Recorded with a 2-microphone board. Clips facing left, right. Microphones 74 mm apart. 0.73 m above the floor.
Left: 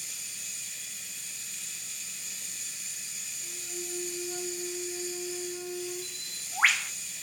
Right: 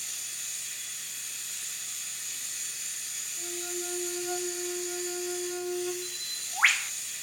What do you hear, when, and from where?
0.0 s running water: 70° right (ahead or behind), 6 m
3.4 s a flute: 85° right, 1.8 m
6.0 s a bird: centre (ahead or behind), 0.5 m